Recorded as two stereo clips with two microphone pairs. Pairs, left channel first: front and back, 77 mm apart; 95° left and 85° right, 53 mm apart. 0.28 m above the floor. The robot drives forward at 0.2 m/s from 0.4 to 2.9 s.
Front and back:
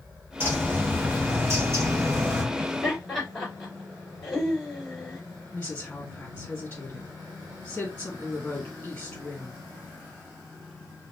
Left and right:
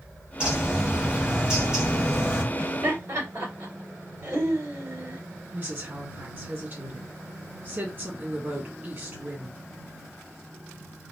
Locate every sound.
0.4 s a bird: 145° right, 1.5 m; by 2.4 s 155° right, 1.7 m
2.5 s laughter: 90° right, 2.5 m; by 5.2 s 95° right, 2.5 m
5.5 s a woman speaking: 60° right, 2 m